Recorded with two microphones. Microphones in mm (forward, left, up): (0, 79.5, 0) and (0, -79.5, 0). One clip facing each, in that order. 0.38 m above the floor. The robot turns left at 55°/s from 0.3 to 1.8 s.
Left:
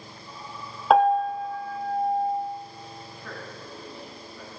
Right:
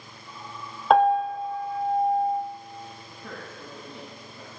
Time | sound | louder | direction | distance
0.9 | a piano | even | 5° left | 0.7 m
3.1 | a man speaking | left 1 dB | 25° right (ahead or behind) | 2.5 m